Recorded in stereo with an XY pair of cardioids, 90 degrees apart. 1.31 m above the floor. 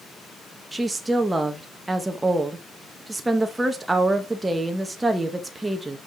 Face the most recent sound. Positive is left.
turn(degrees=-20)